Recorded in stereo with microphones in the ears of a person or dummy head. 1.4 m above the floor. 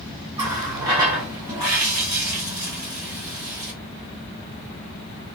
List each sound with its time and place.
0.4 s a running tap: 20° right (ahead or behind), 1.3 m